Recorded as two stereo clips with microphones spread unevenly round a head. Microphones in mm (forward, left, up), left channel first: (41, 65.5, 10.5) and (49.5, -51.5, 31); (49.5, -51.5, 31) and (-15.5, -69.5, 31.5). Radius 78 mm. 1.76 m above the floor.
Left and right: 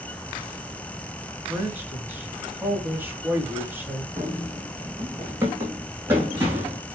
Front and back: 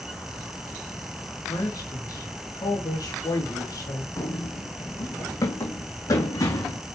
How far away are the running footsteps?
About 3.5 m.